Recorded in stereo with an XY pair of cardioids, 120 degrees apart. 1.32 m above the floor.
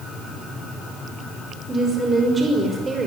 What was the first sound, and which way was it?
A woman speaking, 25° right.